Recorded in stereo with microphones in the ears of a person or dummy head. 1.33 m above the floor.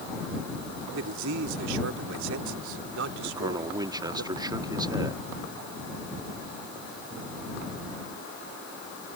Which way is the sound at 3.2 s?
20° right (ahead or behind).